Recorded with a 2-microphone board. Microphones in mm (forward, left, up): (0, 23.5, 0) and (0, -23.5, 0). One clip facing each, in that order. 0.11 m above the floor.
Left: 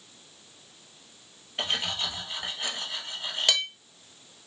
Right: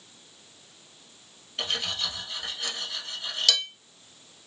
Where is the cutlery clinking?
20° left (ahead or behind), 1.3 m.